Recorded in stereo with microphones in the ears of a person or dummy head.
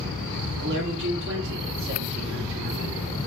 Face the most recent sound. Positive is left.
turn(degrees=-55)  # may be behind; listen again after turning